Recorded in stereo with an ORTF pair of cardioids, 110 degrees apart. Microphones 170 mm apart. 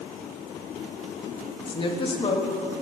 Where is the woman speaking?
30° left, 1.3 m.